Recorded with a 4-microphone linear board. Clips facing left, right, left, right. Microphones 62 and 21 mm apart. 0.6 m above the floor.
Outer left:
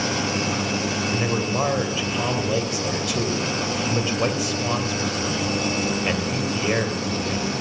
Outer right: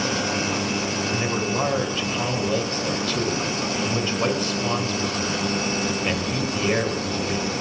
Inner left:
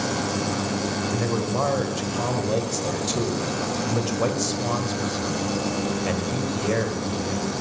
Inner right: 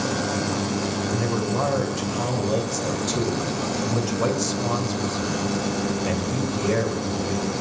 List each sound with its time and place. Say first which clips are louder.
1.1 s a man speaking: outer left 1 dB, inner right 1 dB; 5° left (ahead or behind), 2 m